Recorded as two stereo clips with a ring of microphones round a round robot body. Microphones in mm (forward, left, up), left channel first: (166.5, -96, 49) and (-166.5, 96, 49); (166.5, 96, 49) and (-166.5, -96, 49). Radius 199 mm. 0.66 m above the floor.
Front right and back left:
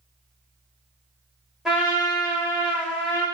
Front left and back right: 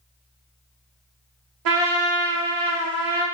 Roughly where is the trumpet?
Behind right.